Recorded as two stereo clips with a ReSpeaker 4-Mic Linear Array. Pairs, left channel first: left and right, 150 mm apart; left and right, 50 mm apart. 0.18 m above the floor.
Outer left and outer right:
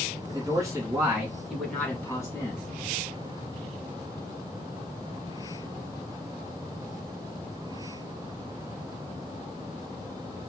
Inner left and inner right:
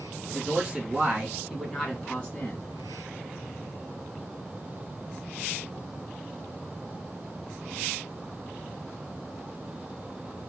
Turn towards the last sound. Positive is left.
turn(degrees=30)  # may be behind; listen again after turning